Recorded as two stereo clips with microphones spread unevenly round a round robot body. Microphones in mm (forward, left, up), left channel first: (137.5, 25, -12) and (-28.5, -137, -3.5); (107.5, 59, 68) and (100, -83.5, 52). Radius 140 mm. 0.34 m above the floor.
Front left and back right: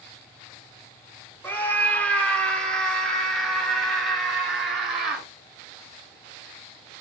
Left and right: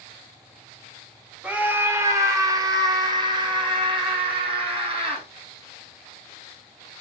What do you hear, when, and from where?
1.4 s a scream: 25° right, 1.3 m; by 5.3 s 45° right, 3 m